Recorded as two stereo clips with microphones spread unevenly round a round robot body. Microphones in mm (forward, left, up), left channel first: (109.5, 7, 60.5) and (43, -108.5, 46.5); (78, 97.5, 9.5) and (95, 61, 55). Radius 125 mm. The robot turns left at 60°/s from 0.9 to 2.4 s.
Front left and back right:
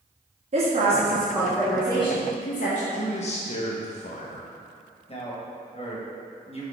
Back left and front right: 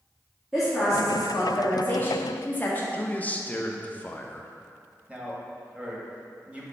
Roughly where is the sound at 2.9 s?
Left.